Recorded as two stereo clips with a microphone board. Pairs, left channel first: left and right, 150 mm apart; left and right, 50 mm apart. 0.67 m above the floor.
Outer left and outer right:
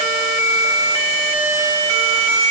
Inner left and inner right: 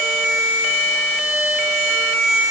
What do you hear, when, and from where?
Only background noise.